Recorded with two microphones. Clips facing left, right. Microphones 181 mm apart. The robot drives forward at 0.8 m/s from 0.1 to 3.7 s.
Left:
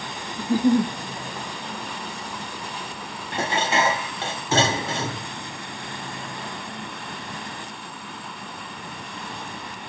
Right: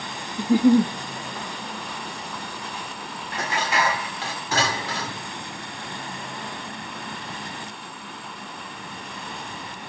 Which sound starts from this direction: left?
Dishes clattering, at 3.3 s.